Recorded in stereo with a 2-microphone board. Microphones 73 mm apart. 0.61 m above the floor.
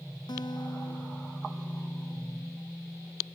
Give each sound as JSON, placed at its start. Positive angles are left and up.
{"t": 0.3, "sound": "a guitar", "side_deg": 80}